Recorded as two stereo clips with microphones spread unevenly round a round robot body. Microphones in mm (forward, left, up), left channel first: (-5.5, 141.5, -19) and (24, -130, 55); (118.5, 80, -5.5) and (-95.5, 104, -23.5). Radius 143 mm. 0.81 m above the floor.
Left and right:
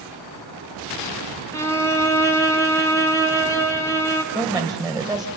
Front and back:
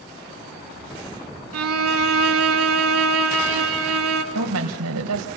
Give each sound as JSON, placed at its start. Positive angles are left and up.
{"t": 1.5, "sound": "a violin", "azimuth_deg": 170, "distance_m": 1.9}
{"t": 4.3, "sound": "a woman speaking", "azimuth_deg": -165, "distance_m": 4.0}